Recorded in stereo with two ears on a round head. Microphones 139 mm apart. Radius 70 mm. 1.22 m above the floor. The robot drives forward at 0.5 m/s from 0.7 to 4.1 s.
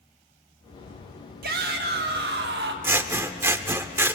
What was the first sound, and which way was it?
A shout, 65° right (ahead or behind).